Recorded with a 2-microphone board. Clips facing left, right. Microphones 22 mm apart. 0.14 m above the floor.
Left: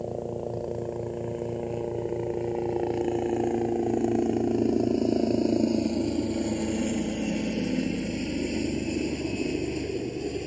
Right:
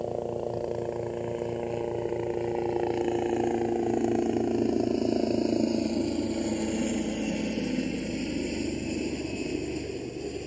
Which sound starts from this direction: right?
A helicopter, at 0.0 s.